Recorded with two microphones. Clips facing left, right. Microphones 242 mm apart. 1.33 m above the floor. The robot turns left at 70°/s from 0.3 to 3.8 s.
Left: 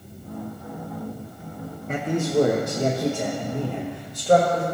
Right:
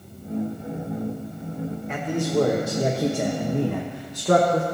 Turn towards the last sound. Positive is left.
turn(degrees=-90)